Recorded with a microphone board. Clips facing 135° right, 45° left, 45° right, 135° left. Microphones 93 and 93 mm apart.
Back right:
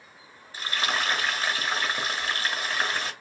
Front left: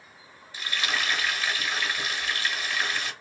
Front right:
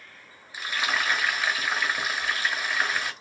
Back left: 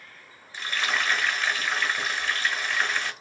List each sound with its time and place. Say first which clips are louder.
0.5 s frying: back right 2 dB, even; 120° right, 1.2 m